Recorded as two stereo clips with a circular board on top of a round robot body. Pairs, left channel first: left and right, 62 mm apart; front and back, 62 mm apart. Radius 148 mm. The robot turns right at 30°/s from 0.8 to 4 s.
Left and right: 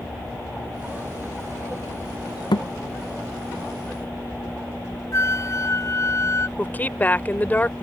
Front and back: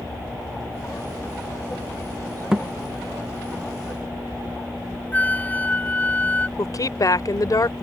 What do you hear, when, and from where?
2.5 s a thud: 100° left; by 2.7 s 105° left
5.1 s a flute: 60° left
6.6 s a woman speaking: 25° left